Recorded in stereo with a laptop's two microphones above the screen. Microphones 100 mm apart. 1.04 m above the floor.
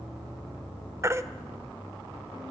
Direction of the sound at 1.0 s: 25° right (ahead or behind).